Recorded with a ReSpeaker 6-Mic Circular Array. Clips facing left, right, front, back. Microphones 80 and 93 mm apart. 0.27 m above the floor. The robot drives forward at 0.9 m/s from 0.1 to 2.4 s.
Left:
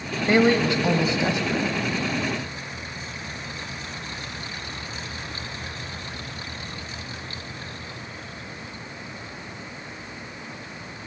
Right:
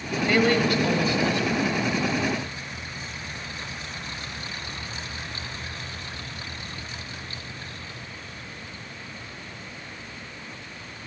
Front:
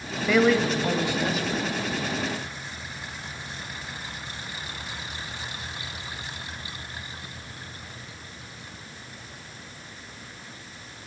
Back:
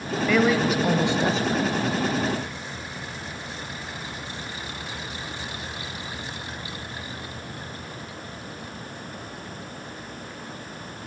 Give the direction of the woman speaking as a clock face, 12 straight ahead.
9 o'clock.